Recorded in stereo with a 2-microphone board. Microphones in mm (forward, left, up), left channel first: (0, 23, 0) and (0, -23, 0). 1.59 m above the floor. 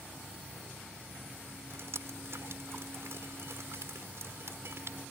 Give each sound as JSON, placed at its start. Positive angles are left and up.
{"t": 1.7, "sound": "dripping", "side_deg": -65}